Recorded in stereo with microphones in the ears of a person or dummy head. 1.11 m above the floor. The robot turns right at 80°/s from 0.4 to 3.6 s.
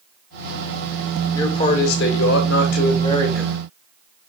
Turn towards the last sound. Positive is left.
turn(degrees=-165)